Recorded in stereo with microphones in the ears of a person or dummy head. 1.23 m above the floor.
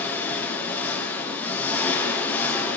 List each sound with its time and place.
0.0 s an engine running: 15° left (ahead or behind), 5.5 m